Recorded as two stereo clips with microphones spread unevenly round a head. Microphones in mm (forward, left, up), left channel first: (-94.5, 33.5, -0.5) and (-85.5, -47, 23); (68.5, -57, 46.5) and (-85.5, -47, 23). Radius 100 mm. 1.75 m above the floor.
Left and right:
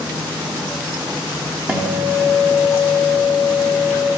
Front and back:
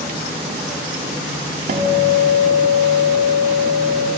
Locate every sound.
1.7 s a guitar: 140° right, 0.9 m